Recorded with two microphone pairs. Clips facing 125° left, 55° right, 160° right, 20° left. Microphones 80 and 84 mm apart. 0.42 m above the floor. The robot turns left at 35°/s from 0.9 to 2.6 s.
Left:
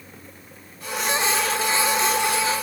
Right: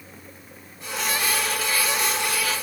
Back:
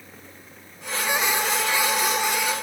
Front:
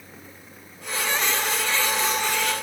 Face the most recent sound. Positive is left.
No sound to turn to.